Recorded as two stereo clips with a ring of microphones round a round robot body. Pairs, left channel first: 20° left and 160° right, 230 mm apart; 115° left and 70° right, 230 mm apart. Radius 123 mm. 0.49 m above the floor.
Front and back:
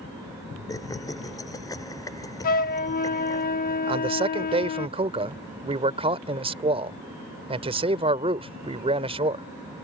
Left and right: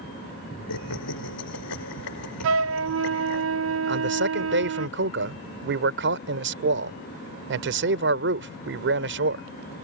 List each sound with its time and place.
0.7 s laughter: 100° left
2.4 s a flute: 35° right
3.9 s a man speaking: 95° right